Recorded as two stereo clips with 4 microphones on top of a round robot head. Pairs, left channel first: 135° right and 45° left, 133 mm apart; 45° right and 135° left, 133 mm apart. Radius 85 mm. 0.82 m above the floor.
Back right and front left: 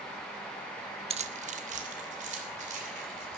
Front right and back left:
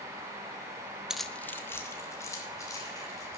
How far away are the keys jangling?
About 0.5 m.